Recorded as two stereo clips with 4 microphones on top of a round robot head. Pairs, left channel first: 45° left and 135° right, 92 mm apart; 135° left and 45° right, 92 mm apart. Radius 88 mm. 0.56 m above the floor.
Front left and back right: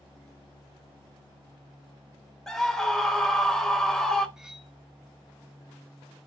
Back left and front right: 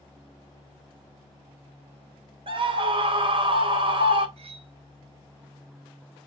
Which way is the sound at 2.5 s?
35° right.